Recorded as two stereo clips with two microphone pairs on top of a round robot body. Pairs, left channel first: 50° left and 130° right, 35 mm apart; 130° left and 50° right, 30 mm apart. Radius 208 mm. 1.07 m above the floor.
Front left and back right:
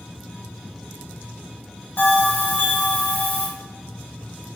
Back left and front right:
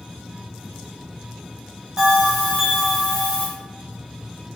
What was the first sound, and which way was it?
A bell, 15° left.